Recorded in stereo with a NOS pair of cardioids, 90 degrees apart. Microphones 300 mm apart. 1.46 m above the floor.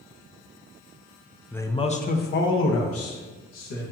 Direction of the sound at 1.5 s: 5° left.